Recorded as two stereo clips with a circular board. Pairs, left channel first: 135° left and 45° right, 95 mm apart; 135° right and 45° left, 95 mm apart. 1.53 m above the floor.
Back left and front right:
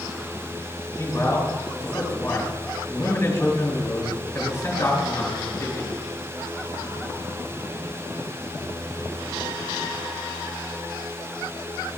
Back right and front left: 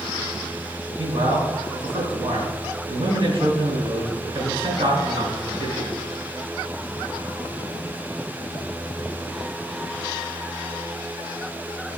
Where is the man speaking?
75° left, 4 m.